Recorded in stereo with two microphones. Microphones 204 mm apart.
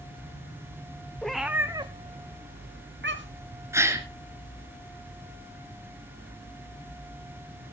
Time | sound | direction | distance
1.2 | a cat meowing | 5° left (ahead or behind) | 1.6 m
3.7 | a gasp | 15° right (ahead or behind) | 2 m